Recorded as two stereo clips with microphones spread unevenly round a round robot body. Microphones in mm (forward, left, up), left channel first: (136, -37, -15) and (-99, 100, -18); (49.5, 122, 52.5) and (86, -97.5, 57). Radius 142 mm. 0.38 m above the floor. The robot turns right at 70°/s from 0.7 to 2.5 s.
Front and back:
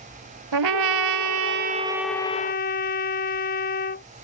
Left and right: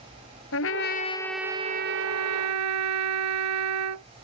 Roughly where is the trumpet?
Behind left.